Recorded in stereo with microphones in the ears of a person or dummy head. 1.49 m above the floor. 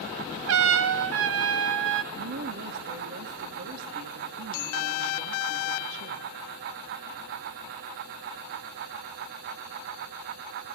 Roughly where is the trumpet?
Right.